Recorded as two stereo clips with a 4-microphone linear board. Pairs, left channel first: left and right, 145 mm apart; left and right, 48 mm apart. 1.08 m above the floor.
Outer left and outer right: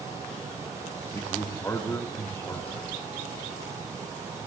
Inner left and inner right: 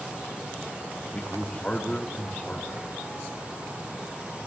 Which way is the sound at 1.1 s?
20° left (ahead or behind).